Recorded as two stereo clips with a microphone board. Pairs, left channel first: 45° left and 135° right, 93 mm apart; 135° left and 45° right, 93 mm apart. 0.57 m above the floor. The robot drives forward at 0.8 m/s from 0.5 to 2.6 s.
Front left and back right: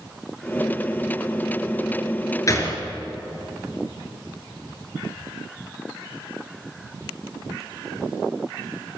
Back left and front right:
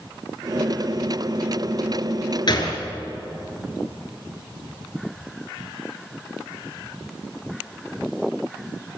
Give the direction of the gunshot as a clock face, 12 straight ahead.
9 o'clock.